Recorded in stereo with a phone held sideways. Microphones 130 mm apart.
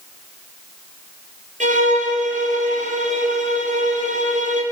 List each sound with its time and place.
1.6 s a violin: 80° right, 4.5 m